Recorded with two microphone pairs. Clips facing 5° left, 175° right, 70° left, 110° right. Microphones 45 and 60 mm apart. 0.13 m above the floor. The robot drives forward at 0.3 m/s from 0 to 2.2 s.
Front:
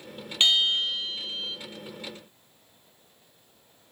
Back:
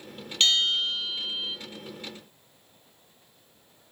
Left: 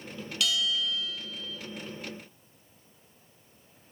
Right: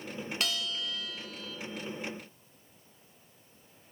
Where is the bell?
65° right, 0.6 m; by 1.6 s 100° right, 0.6 m.